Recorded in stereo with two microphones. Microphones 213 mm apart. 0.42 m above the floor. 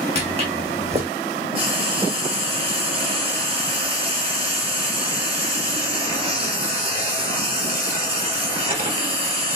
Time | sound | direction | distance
0.1 | footsteps | 30° right (ahead or behind) | 1.7 m
1.6 | frying | 25° right (ahead or behind) | 2.5 m